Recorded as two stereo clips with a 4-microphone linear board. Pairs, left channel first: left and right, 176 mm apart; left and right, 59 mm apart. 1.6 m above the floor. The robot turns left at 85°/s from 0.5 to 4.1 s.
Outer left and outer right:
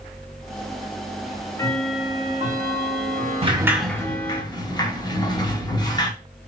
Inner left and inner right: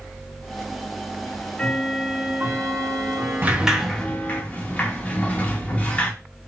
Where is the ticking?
50° left, 0.6 m; by 4.4 s 170° left, 0.6 m.